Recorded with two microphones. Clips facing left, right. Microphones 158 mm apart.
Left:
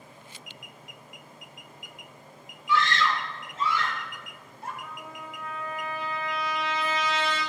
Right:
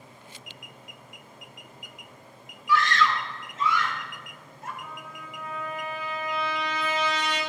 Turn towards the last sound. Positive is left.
turn(degrees=40)  # may be behind; listen again after turning